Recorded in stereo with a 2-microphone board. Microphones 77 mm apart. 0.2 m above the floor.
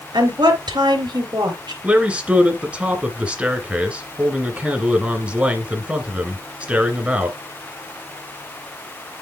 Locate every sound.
0.1 s a woman speaking: 70° right (ahead or behind), 3.5 m
1.8 s a man speaking: 15° right (ahead or behind), 2 m